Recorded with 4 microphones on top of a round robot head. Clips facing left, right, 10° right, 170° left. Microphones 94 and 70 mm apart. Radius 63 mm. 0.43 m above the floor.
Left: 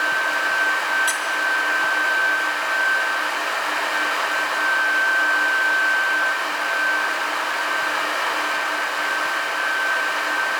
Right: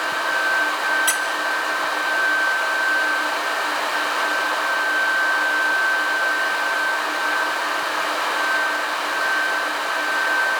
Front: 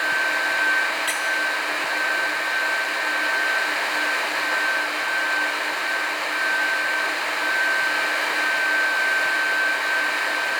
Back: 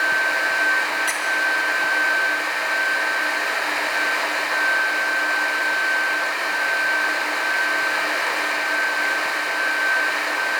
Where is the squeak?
110° right, 1.7 m.